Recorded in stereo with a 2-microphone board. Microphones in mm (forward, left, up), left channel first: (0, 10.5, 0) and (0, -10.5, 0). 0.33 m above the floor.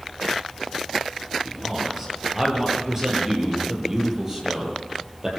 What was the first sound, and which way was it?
A man speaking, 20° right (ahead or behind).